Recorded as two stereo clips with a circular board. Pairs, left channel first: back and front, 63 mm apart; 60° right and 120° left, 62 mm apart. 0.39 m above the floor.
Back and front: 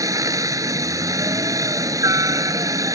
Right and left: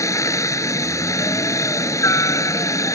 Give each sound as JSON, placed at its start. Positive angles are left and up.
{"t": 0.0, "sound": "a helicopter", "azimuth_deg": -25}